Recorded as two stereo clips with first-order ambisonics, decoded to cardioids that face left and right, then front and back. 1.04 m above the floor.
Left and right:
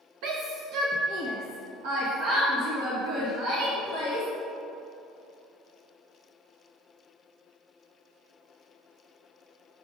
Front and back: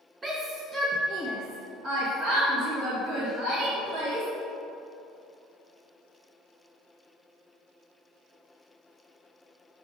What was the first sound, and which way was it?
A shout, 105° right.